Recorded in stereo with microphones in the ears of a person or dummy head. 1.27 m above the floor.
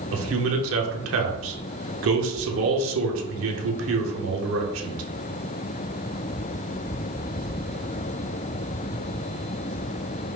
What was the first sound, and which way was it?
A man speaking, 70° right (ahead or behind).